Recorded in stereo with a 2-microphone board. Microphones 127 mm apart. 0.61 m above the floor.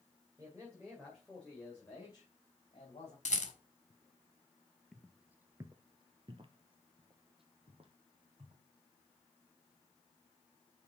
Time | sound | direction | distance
0.4 | a man speaking | 25° right (ahead or behind) | 2.5 m
3.2 | a rattle | 65° left (ahead or behind) | 1.6 m
4.9 | footsteps | centre (ahead or behind) | 0.7 m